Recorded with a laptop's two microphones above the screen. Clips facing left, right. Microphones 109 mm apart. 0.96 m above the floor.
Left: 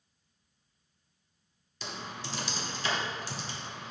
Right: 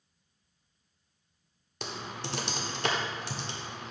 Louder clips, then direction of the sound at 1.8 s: Right 2 dB; 65° right (ahead or behind).